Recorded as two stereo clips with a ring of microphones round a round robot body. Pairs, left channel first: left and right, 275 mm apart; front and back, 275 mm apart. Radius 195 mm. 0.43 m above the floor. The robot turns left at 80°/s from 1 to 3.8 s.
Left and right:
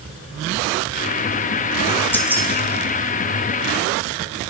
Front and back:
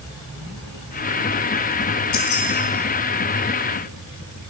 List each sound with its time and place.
2.1 s keys jangling: 10° left, 1.9 m; by 2.5 s 20° right, 1.9 m